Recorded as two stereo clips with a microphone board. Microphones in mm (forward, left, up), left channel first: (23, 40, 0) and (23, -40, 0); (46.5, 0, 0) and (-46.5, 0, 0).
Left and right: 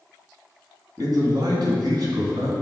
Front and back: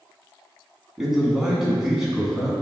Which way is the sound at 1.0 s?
95° right.